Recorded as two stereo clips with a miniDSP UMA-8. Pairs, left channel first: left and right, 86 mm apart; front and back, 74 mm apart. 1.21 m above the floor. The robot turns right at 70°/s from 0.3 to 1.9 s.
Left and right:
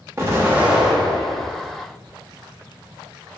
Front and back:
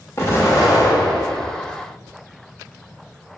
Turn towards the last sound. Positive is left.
turn(degrees=70)